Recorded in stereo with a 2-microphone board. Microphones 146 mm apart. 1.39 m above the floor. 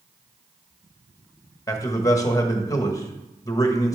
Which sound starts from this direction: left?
A man speaking, at 1.7 s.